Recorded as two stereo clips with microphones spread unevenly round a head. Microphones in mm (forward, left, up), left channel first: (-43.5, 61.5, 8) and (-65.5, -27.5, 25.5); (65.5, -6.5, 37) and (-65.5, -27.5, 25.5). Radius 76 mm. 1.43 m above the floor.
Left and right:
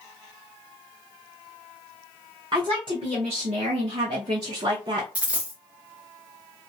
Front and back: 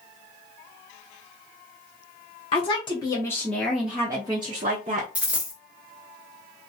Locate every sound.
2.5 s a woman speaking: 40° right, 1.1 m; by 5.0 s 135° right, 1.0 m
5.2 s a dropped coin: 90° right, 0.7 m